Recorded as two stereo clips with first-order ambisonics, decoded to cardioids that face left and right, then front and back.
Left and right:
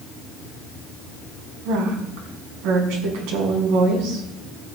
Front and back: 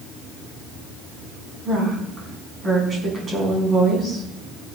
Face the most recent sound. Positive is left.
turn(degrees=-110)